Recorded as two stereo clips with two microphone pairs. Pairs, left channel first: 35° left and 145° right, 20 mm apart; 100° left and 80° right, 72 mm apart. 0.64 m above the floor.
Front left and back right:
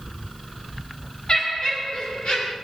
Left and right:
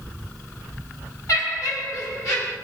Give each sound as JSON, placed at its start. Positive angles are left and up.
{"t": 1.3, "sound": "laughter", "azimuth_deg": 60, "distance_m": 1.5}